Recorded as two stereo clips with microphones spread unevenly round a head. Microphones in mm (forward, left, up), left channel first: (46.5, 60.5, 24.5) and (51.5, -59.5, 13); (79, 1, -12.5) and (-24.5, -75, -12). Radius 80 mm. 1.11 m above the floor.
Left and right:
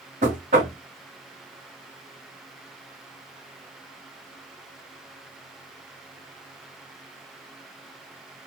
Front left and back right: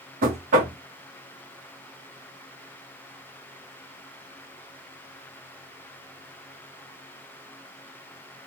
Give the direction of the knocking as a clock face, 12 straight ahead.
4 o'clock.